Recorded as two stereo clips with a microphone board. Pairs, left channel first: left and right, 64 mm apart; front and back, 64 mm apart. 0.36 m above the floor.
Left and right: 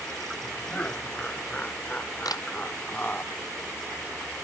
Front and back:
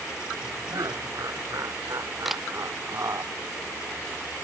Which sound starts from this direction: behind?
Laughter, at 0.7 s.